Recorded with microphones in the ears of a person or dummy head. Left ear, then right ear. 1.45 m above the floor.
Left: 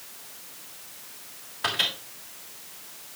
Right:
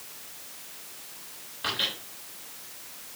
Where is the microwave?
35° left (ahead or behind), 3.5 m.